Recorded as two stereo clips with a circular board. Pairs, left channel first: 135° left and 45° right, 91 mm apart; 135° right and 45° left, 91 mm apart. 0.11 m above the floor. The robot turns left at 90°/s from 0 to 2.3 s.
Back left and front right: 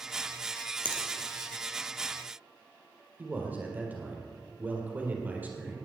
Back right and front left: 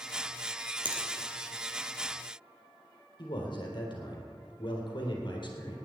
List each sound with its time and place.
0.8 s a finger snap: 60° left, 2.5 m; by 1.0 s 45° left, 2.5 m
3.2 s a man speaking: 115° right, 3.5 m